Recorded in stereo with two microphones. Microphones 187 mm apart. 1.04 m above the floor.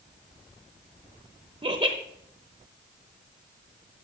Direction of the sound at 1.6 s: 35° right (ahead or behind).